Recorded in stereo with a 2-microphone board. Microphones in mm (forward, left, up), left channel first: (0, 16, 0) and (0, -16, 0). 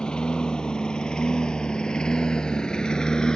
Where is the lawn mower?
20° left (ahead or behind).